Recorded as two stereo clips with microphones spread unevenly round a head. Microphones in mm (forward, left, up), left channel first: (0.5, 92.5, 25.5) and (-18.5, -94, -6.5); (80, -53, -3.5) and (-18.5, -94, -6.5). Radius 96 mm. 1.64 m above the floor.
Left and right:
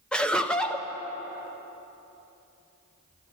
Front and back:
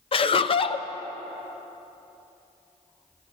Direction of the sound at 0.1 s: 5° left.